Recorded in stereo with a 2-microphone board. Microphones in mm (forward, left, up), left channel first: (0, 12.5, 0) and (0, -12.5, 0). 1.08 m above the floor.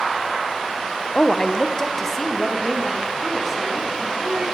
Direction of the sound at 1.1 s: 40° left (ahead or behind).